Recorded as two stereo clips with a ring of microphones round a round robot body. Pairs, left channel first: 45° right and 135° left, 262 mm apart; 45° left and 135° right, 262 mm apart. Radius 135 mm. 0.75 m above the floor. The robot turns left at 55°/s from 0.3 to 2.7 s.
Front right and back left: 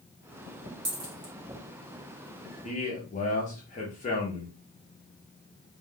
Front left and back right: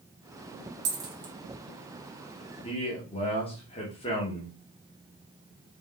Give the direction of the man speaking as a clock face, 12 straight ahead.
12 o'clock.